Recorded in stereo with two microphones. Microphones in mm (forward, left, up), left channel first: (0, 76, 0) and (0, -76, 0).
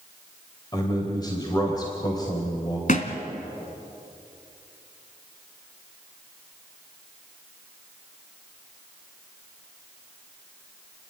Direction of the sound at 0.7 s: 25° left (ahead or behind).